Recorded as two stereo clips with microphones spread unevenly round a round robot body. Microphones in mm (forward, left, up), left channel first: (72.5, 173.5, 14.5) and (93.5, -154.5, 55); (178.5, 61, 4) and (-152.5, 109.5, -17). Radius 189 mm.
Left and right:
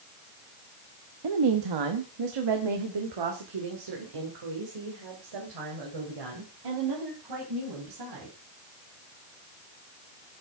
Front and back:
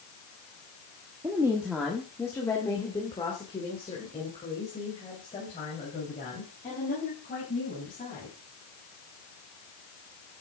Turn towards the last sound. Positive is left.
turn(degrees=-80)